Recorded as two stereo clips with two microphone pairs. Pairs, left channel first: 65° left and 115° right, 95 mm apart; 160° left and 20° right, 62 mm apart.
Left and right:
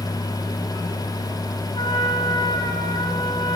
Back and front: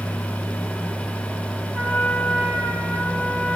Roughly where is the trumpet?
Ahead left.